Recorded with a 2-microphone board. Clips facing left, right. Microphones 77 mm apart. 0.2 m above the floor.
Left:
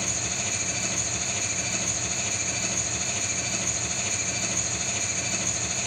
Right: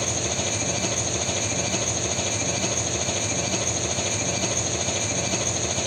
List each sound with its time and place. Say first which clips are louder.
0.0 s an engine running: right 6 dB; 60° right (ahead or behind), 1.3 m